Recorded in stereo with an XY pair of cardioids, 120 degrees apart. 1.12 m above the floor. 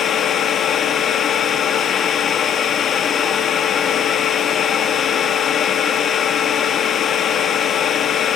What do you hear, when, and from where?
0.0 s a machine running: 50° left, 1.5 m